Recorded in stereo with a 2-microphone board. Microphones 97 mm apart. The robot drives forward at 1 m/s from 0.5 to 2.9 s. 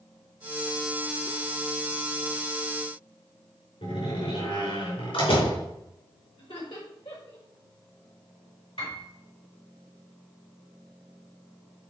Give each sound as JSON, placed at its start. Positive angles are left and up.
{"t": 3.8, "sound": "a door slam", "side_deg": 80, "distance_m": 4.5}
{"t": 6.4, "sound": "laughter", "side_deg": 65, "distance_m": 4.5}
{"t": 8.8, "sound": "a piano", "side_deg": 75, "distance_m": 5.0}